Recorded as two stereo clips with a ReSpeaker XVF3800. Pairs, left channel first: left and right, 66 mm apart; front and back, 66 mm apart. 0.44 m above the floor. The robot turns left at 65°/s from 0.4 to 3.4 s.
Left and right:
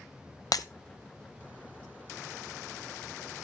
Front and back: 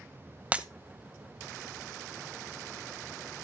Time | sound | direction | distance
0.5 | breaking glass | 110° left | 0.8 m